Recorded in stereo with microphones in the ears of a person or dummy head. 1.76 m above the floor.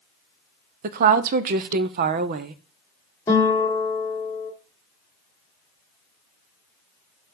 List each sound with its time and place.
0.8 s a woman speaking: 50° right (ahead or behind), 0.6 m
3.3 s a guitar: 20° left (ahead or behind), 1.9 m